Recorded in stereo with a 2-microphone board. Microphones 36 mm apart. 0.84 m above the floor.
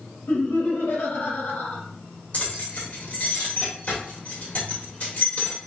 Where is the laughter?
70° left (ahead or behind), 1.8 m.